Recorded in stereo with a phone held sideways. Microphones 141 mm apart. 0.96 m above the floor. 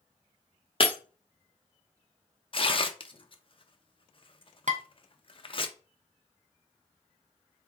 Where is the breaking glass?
45° left (ahead or behind), 0.8 m.